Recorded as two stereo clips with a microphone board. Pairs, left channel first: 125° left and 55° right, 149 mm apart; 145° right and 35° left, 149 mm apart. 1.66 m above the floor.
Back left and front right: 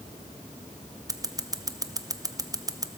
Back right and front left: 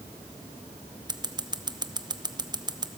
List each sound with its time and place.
1.1 s scissors: 5° right, 0.8 m